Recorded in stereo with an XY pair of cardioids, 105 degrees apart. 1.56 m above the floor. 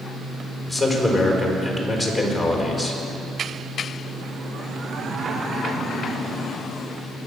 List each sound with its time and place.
0.7 s a man speaking: 5° left, 4.5 m